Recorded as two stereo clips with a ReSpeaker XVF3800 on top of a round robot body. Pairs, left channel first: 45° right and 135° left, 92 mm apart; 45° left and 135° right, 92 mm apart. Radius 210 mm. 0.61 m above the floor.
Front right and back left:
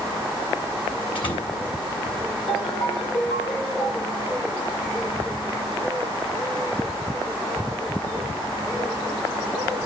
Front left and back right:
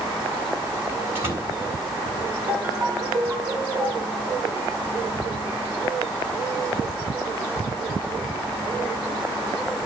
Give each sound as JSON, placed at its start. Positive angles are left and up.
{"t": 1.1, "sound": "a door slam", "azimuth_deg": -70, "distance_m": 7.5}
{"t": 2.5, "sound": "a ringtone", "azimuth_deg": -65, "distance_m": 3.5}